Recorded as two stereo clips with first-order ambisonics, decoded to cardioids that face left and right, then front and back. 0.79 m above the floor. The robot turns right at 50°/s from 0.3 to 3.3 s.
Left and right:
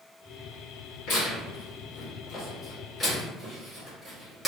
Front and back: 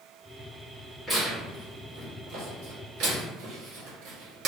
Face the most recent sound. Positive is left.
turn(degrees=-170)